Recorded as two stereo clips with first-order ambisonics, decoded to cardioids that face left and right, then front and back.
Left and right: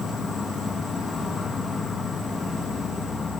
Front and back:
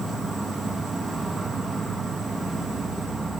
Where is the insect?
120° left, 1.6 m.